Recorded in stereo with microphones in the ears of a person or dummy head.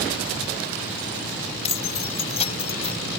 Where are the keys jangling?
35° left (ahead or behind); by 3.0 s 30° left (ahead or behind).